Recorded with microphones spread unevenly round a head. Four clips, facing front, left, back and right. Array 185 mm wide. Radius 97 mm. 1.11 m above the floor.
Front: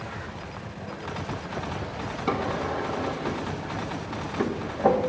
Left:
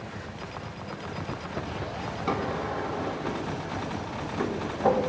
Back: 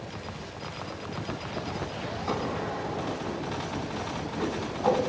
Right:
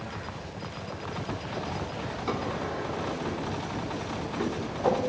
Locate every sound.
2.3 s a drawer: 15° left, 3 m